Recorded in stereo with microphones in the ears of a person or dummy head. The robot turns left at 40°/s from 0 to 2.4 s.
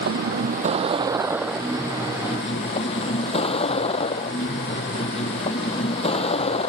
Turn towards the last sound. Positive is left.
turn(degrees=150)